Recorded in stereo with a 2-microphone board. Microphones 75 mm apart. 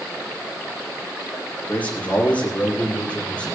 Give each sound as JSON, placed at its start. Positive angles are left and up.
{"t": 1.7, "sound": "a man speaking", "side_deg": 25, "distance_m": 6.5}